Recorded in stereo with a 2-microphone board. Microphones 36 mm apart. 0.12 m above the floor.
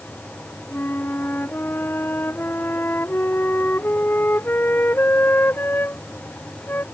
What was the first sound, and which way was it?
A flute, 70° left (ahead or behind).